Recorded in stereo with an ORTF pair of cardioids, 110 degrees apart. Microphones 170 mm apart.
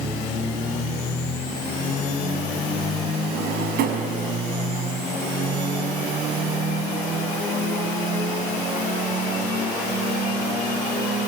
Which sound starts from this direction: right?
A drawer, at 3.3 s.